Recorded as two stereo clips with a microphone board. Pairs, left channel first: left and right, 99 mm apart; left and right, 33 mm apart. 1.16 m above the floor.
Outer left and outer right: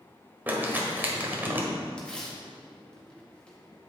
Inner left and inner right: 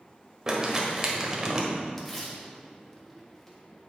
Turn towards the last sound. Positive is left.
turn(degrees=10)  # may be behind; listen again after turning